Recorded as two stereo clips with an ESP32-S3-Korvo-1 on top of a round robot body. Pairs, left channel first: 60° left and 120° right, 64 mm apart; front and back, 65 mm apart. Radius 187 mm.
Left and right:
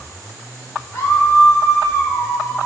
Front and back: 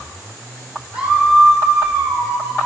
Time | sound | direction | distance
0.9 | a scream | 105° left | 4.5 m